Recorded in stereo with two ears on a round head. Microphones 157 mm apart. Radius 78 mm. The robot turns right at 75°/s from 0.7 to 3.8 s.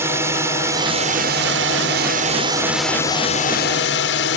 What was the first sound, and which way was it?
A drone, 15° right (ahead or behind).